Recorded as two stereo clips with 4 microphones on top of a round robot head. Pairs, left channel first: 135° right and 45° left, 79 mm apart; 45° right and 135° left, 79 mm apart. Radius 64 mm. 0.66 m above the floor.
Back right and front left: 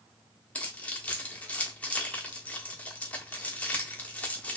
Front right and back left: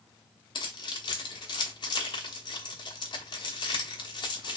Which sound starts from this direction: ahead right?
Keys jangling, at 0.6 s.